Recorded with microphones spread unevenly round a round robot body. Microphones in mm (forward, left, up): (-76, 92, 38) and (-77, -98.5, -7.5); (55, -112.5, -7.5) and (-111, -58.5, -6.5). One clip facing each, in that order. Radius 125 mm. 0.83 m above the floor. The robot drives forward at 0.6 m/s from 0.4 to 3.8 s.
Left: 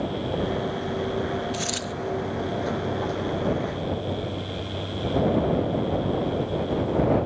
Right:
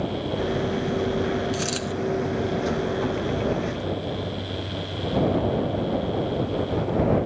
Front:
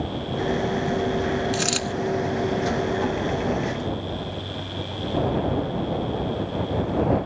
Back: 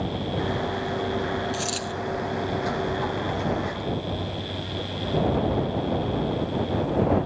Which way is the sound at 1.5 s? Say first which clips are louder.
Right 3 dB, front 4 dB; 25° right.